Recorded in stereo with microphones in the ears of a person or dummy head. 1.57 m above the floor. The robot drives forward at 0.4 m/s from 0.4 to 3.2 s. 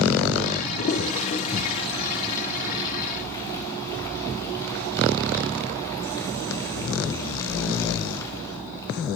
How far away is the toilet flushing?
About 0.9 m.